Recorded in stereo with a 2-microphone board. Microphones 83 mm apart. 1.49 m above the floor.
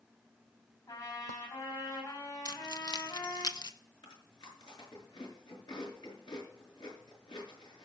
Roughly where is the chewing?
Left.